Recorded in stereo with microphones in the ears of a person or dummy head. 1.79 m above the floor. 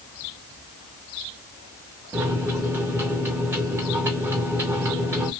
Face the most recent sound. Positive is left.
turn(degrees=-10)  # may be behind; listen again after turning